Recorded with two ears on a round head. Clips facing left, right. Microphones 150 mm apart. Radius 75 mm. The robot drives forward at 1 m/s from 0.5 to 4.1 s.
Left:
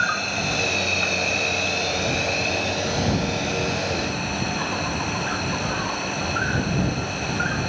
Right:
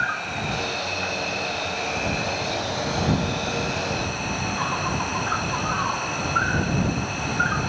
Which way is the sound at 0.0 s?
50° left (ahead or behind).